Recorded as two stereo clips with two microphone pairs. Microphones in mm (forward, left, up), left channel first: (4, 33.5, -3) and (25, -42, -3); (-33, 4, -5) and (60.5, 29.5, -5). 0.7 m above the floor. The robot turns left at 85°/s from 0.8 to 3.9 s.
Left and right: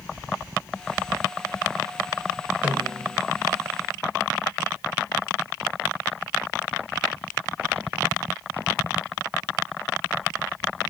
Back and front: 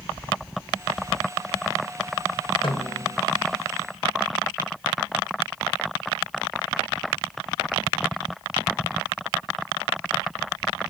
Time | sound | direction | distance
2.6 | a snare drum | 145° right | 3 m